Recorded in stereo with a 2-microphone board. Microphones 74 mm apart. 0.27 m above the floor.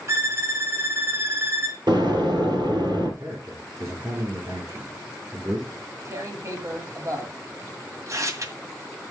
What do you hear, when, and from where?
0.1 s a violin: 40° right (ahead or behind), 1.9 m
1.9 s an explosion: 75° right (ahead or behind), 3 m
3.2 s a man speaking: 45° right (ahead or behind), 3 m
5.8 s tearing paper: 45° right (ahead or behind), 1.8 m